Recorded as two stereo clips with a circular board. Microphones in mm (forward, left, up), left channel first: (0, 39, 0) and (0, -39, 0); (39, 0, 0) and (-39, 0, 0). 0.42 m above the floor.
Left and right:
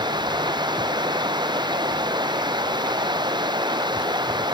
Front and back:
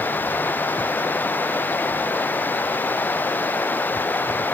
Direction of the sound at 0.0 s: 65° right.